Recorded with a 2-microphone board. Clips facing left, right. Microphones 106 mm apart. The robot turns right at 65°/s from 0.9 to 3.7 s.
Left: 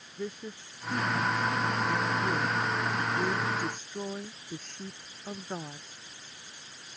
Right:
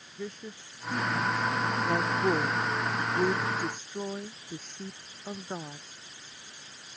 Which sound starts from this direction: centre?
A woman speaking, at 0.2 s.